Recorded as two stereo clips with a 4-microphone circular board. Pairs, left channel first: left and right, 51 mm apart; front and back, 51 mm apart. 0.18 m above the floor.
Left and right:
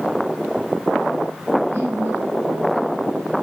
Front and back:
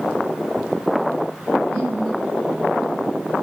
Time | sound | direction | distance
1.6 | laughter | 125° right | 6 m